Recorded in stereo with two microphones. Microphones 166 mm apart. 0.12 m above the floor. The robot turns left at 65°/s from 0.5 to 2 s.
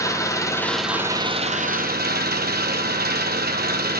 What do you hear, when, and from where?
0.0 s an engine running: 20° left, 1.2 m; by 4.0 s 75° right, 1.2 m